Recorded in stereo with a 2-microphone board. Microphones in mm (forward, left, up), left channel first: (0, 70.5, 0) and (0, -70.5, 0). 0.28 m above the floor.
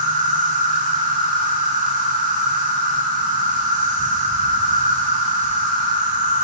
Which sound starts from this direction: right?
An insect, at 0.0 s.